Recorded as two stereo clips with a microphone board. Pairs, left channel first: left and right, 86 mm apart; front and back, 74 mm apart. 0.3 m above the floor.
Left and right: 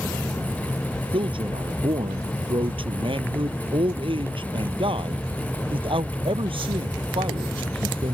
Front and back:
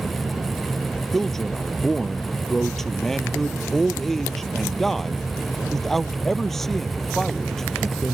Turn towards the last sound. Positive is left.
turn(degrees=-85)